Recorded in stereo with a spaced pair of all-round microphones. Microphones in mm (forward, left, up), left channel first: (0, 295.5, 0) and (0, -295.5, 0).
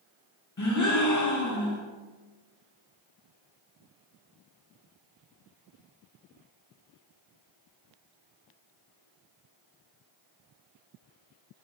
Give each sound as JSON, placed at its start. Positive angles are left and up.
{"t": 0.6, "sound": "a gasp", "side_deg": 35, "distance_m": 0.5}